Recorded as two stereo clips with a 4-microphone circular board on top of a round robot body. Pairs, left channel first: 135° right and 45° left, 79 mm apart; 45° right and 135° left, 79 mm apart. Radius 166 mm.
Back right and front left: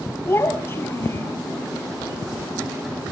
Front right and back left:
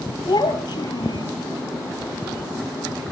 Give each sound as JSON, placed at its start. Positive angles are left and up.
{"t": 0.2, "sound": "a child speaking", "azimuth_deg": -80, "distance_m": 5.0}